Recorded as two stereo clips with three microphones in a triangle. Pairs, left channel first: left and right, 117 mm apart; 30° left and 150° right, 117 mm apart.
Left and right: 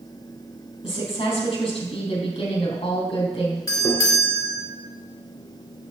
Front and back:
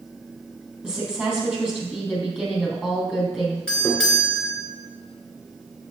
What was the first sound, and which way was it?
A woman speaking, 130° left.